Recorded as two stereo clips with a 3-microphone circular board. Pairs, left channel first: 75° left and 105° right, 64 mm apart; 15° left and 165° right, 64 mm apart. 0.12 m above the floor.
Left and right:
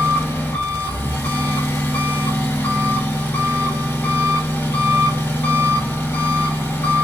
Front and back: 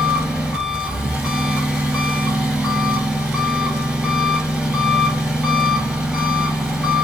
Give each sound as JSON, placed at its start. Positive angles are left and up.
{"t": 0.0, "sound": "an engine running", "azimuth_deg": 125, "distance_m": 1.4}